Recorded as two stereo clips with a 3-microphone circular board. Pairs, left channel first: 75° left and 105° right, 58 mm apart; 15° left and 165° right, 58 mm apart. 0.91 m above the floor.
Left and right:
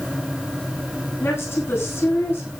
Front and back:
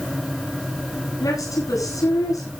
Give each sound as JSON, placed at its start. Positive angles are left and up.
{"t": 1.2, "sound": "a woman speaking", "azimuth_deg": 30, "distance_m": 9.5}